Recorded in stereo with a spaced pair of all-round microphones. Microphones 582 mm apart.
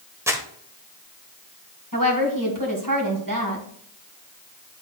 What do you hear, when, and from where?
0.3 s crumpling: 5° right (ahead or behind), 1.0 m
1.9 s a woman speaking: 35° right (ahead or behind), 2.0 m